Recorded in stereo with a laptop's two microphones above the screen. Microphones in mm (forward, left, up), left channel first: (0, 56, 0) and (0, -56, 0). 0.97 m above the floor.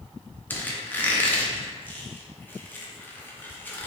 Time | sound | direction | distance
0.5 | a squeak | 15° left (ahead or behind) | 0.6 m